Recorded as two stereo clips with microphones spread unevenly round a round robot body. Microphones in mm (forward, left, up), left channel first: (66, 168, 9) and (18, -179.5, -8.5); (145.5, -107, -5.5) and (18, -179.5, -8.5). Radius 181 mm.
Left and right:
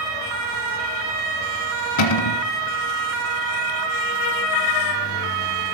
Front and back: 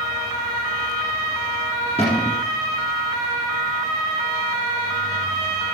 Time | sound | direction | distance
2.0 | a cupboard door | 105° left | 1.4 m